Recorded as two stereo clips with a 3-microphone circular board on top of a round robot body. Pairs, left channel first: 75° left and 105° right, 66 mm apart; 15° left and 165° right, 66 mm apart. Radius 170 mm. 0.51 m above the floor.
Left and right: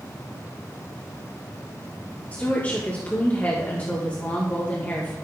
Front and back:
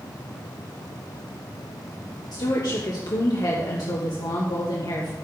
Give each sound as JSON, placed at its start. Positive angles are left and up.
{"t": 2.3, "sound": "a woman speaking", "azimuth_deg": 10, "distance_m": 2.0}